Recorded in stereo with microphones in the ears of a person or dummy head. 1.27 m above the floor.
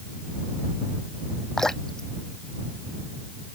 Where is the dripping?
Centre (ahead or behind).